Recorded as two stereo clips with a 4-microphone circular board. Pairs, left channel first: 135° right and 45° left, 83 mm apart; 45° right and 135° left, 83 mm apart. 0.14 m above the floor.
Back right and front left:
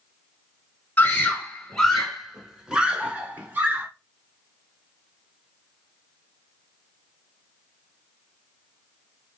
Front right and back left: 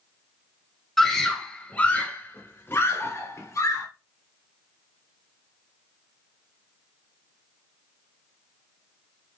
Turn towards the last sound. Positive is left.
turn(degrees=-15)